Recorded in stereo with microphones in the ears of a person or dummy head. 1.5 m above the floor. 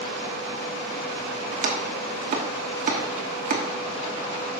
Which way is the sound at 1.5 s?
45° right (ahead or behind).